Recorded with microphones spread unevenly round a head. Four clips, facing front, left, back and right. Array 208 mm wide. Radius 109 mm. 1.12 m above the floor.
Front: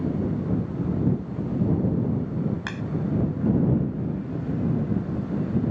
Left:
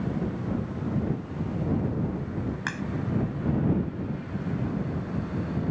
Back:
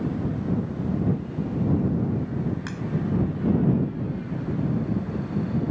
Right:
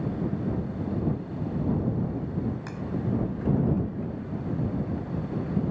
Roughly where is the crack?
Ahead left.